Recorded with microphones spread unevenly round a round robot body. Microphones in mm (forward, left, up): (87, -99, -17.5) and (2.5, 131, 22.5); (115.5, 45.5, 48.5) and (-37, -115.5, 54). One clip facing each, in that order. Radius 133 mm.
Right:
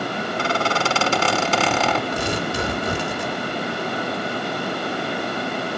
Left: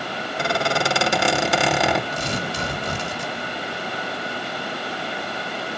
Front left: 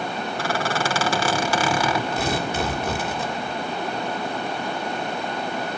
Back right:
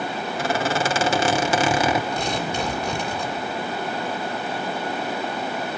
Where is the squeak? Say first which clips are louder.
Left 1 dB, back right 3 dB; 165° left, 0.5 m.